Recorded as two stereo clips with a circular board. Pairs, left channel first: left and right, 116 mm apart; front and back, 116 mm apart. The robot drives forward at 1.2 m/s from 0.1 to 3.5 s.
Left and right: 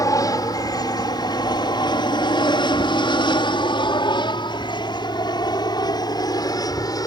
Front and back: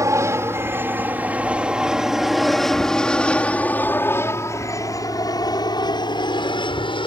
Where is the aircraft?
130° left; by 7.1 s 35° left.